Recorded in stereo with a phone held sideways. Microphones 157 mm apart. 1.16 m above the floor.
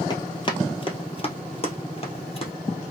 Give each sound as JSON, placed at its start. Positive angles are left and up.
{"t": 0.1, "sound": "running footsteps", "side_deg": 30, "distance_m": 1.5}